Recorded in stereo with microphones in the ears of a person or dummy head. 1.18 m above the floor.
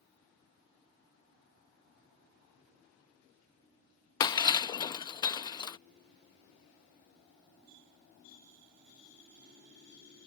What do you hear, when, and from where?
4.2 s breaking glass: 20° left (ahead or behind)